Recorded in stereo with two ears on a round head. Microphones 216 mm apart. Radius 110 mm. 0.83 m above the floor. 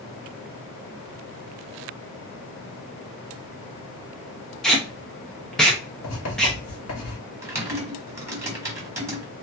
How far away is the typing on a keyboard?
About 1.0 m.